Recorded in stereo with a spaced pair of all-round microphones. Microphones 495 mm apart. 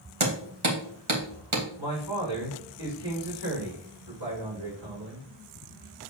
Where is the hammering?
75° right (ahead or behind), 1.5 m.